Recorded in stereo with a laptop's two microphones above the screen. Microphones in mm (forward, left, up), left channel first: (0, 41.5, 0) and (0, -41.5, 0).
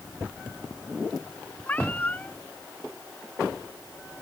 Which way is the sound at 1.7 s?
20° left (ahead or behind).